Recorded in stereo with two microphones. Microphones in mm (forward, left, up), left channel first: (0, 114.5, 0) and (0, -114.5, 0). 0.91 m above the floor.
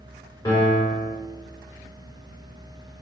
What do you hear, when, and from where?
0.5 s a piano: 15° left (ahead or behind), 1.7 m